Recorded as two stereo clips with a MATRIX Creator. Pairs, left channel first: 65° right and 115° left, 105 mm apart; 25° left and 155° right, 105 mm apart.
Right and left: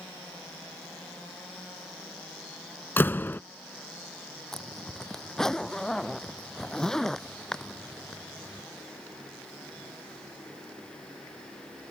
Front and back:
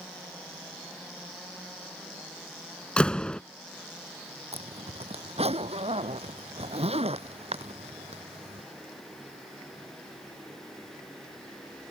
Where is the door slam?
40° right.